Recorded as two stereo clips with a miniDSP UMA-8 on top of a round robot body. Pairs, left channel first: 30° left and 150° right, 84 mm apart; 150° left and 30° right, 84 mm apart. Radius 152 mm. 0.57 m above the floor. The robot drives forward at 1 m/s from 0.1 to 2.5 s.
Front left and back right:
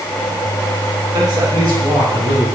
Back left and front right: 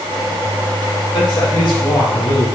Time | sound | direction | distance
1.1 | a man speaking | 175° left | 3 m